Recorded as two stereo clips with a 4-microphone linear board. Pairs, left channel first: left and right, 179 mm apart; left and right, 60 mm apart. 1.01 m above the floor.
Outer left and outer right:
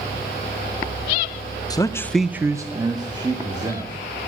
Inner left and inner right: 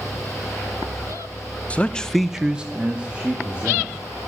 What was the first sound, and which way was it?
A man speaking, 20° left (ahead or behind).